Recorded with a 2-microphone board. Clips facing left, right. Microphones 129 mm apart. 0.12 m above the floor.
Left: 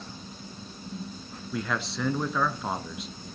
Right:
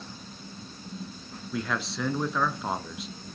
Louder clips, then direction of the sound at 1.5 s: Even; centre (ahead or behind).